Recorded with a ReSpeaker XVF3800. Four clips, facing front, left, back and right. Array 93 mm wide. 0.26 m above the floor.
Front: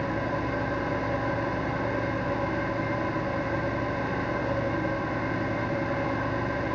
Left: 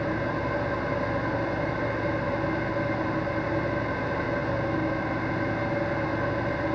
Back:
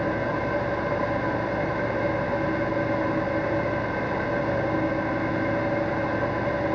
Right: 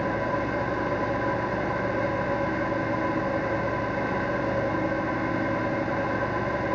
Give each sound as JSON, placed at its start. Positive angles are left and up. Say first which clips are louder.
{"t": 0.0, "sound": "an engine running", "louder": "right 2 dB, back 3 dB", "azimuth_deg": -175, "distance_m": 3.5}